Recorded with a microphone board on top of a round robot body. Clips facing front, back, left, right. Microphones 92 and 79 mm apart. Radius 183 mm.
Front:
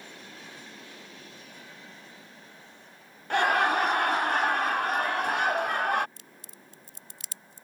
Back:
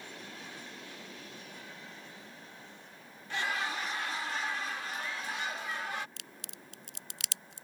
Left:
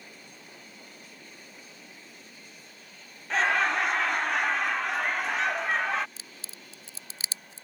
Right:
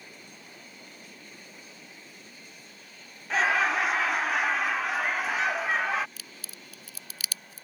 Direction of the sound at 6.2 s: 155° left.